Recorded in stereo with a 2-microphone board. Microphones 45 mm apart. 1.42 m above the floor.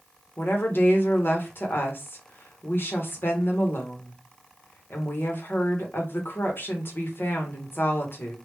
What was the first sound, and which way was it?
A woman speaking, 55° left (ahead or behind).